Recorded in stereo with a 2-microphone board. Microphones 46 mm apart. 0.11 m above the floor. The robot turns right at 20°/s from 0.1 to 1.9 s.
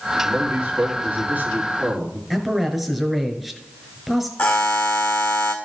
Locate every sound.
0.2 s a man speaking: 85° right, 3 m; by 2.2 s 55° right, 3 m
2.3 s a man speaking: 5° right (ahead or behind), 1.3 m
4.4 s a buzzer: 60° left (ahead or behind), 1.6 m